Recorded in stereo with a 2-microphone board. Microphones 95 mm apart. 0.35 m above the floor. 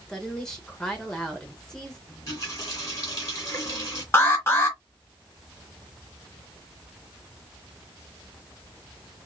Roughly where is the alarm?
Left.